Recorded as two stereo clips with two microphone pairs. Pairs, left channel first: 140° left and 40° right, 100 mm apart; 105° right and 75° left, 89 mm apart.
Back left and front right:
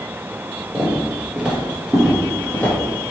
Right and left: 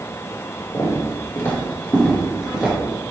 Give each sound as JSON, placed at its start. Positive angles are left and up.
{"t": 0.7, "sound": "footsteps", "azimuth_deg": -90, "distance_m": 1.7}